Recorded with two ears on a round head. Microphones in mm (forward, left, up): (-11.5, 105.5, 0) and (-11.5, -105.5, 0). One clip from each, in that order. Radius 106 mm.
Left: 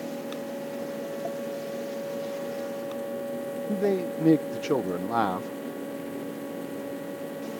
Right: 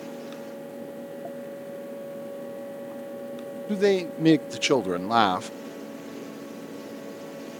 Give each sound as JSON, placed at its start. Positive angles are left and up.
{"t": 3.7, "sound": "a man speaking", "side_deg": -65}